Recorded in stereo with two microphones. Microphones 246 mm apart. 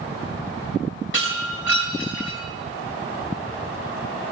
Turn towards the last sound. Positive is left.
turn(degrees=55)  # may be behind; listen again after turning